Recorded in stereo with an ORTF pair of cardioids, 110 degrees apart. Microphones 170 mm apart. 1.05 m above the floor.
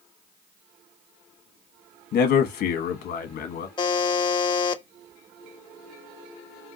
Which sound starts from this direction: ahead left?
A buzzer, at 3.8 s.